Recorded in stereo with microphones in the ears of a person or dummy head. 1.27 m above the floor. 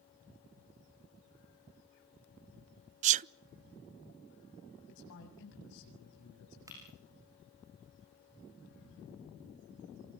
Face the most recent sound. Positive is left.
turn(degrees=-20)  # may be behind; listen again after turning